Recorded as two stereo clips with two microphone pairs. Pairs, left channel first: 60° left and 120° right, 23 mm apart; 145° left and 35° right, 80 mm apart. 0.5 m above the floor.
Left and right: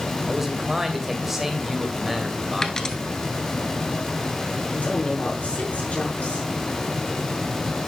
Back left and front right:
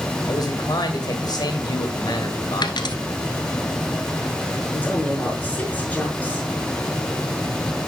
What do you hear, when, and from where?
0.3 s a man speaking: 160° left, 2.5 m
2.6 s a dropped coin: 125° left, 1.2 m
4.7 s a woman speaking: 75° left, 5.5 m